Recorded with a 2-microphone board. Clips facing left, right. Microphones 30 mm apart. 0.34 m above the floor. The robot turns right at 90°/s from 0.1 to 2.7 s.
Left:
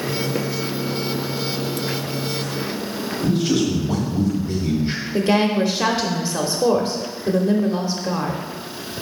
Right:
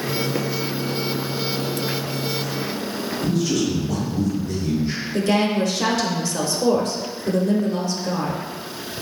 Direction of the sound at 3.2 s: 30° left (ahead or behind).